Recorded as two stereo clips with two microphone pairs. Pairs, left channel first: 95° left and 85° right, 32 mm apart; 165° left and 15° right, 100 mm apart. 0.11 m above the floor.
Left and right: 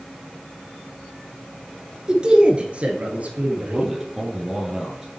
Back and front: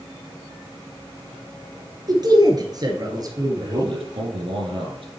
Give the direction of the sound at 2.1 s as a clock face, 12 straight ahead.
1 o'clock.